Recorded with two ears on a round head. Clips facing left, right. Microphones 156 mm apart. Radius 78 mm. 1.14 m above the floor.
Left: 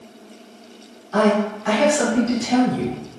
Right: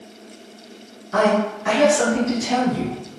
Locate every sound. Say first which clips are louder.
1.1 s a woman speaking: even; 15° right (ahead or behind), 1.5 m